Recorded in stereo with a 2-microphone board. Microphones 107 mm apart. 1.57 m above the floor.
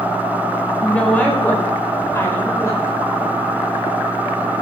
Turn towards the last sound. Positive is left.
turn(degrees=30)  # may be behind; listen again after turning